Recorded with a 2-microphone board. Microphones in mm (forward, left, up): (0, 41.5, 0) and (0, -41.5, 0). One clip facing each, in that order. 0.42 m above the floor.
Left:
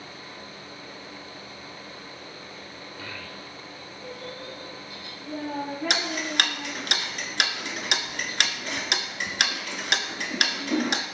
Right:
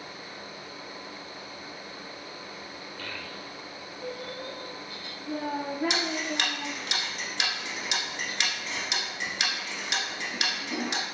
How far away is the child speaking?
About 0.7 m.